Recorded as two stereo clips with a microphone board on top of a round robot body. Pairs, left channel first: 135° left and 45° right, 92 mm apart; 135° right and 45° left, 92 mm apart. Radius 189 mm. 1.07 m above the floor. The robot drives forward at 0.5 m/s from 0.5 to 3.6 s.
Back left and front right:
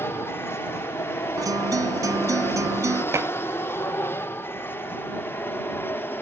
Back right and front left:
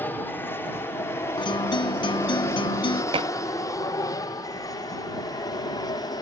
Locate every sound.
0.0 s an aircraft: 175° left; by 6.2 s 165° right
1.4 s a guitar: 95° right; by 3.0 s 100° right
3.1 s dishes clattering: 15° left; by 3.3 s 20° left